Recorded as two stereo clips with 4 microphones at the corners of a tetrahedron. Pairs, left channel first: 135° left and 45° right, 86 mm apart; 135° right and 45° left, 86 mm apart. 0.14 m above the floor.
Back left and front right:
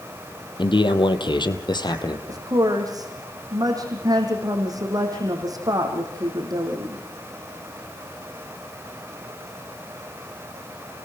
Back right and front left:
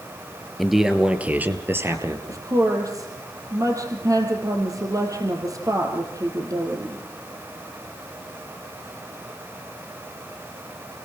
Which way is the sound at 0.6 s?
135° left.